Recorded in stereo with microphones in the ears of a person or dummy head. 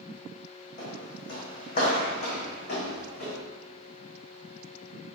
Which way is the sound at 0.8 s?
35° left (ahead or behind).